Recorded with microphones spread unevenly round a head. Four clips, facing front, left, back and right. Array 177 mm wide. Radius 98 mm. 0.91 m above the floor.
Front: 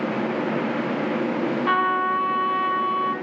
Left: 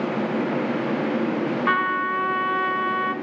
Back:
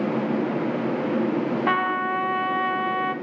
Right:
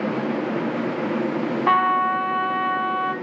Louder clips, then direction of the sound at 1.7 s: Right 7 dB, front 2 dB; 145° right.